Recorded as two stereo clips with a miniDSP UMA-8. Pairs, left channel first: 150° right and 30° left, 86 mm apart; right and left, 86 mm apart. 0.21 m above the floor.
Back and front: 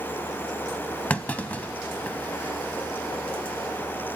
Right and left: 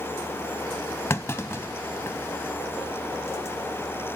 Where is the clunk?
95° right, 0.6 m.